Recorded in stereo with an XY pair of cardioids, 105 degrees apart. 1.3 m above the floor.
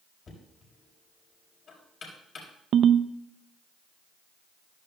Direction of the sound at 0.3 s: 50° left.